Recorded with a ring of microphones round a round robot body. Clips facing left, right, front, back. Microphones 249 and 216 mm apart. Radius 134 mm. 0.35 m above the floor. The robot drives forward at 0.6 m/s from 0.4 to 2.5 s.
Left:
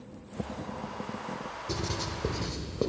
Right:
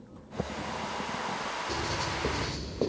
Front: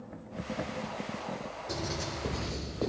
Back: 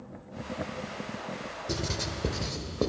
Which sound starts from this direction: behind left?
Writing, at 1.7 s.